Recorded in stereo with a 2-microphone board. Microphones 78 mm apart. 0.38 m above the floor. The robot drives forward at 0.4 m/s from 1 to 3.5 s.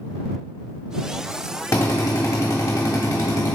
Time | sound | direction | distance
1.7 | a drill | 40° left (ahead or behind) | 1.2 m